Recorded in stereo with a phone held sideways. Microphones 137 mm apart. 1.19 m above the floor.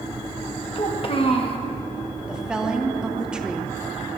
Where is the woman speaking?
5° right (ahead or behind), 1.2 m.